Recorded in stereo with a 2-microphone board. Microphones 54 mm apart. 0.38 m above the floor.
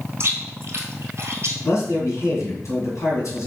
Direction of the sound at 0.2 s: 55° right (ahead or behind).